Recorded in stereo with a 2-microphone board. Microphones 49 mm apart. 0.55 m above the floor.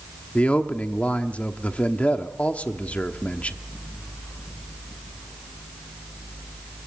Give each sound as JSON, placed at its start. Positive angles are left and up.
{"t": 0.3, "sound": "a man speaking", "side_deg": 25, "distance_m": 1.1}